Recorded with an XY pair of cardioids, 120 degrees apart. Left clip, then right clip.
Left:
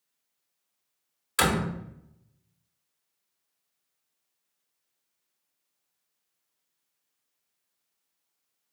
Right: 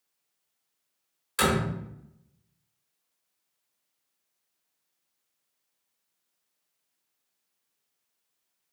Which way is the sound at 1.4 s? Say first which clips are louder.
Even; 30° left.